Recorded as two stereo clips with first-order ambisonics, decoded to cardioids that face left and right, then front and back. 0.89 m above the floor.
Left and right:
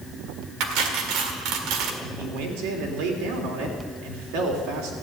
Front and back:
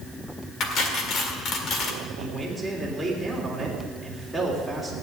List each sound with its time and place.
0.6 s cutlery clinking: 55° right, 1.8 m
2.0 s a man speaking: 90° right, 3.5 m